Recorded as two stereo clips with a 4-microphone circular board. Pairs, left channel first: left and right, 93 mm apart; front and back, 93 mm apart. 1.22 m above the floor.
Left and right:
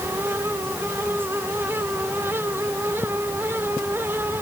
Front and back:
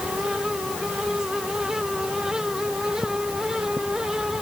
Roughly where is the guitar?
No guitar in this recording.